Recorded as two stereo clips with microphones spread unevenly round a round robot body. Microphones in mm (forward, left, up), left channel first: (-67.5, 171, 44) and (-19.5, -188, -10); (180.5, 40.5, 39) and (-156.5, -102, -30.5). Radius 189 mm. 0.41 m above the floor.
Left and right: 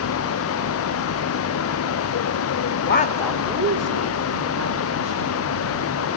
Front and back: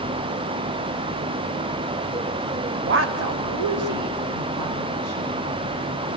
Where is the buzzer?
I don't hear a buzzer.